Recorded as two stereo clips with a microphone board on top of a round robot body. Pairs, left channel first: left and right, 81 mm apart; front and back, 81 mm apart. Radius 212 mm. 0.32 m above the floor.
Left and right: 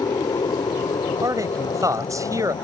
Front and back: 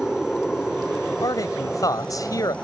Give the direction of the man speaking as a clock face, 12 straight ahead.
1 o'clock.